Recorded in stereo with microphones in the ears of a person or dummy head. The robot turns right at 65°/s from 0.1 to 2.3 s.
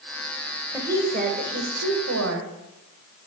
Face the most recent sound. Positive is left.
turn(degrees=-70)